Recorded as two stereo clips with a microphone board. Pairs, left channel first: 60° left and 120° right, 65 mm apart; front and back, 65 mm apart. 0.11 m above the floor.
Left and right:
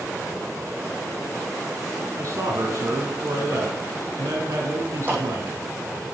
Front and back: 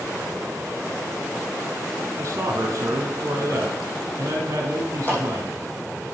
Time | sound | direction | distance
2.2 | a man speaking | 145° right | 3 m
5.1 | a clap | 60° right | 4.5 m